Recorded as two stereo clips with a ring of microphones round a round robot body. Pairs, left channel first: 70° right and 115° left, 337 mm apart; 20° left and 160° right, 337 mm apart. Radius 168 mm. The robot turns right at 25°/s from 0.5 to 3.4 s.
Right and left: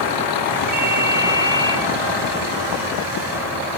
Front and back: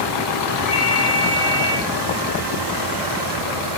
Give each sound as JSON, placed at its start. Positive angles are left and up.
{"t": 0.7, "sound": "a ringtone", "azimuth_deg": 90, "distance_m": 9.5}